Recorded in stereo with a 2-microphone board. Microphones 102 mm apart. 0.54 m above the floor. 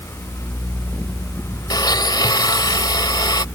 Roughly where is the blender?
Left.